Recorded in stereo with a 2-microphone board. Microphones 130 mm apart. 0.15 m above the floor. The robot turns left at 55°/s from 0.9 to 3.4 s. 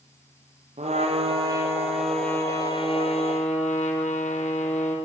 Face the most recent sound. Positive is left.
turn(degrees=110)